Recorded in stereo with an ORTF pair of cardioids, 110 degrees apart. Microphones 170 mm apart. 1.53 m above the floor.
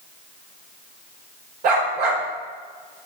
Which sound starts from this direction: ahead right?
A dog barking, at 1.6 s.